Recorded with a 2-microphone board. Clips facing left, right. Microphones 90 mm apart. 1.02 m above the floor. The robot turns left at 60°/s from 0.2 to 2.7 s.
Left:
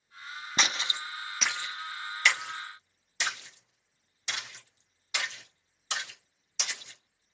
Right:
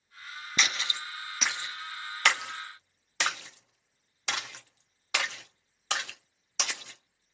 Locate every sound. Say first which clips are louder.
0.6 s a splash: left 1 dB; 40° left (ahead or behind), 0.9 m; by 7.3 s 80° right, 0.9 m